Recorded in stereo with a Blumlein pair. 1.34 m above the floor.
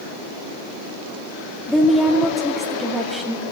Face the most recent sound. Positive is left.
turn(degrees=0)